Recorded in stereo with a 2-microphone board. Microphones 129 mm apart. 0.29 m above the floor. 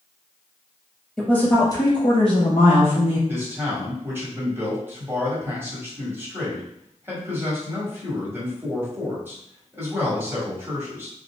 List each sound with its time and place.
1.2 s a woman speaking: 5° left (ahead or behind), 1.3 m; by 3.2 s 55° left (ahead or behind), 2 m
3.3 s a man speaking: 15° right (ahead or behind), 1.6 m